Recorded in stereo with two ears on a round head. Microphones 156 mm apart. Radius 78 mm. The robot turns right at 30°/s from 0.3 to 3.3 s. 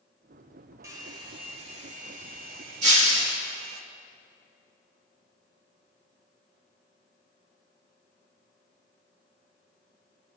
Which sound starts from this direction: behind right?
A hair dryer, at 0.8 s.